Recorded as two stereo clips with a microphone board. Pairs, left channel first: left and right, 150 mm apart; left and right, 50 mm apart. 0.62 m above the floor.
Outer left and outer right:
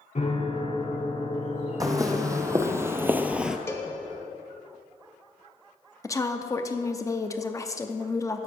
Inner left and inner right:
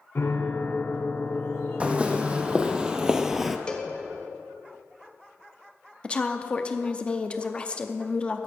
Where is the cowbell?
20° left (ahead or behind), 0.8 m.